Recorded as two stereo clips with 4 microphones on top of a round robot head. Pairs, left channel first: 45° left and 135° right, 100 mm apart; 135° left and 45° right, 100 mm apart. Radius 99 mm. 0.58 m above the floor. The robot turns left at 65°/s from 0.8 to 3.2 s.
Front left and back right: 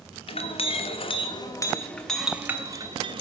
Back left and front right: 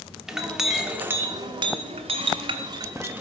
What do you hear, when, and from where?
0.3 s a clink: 40° left, 1.2 m; by 3.2 s 115° right, 1.2 m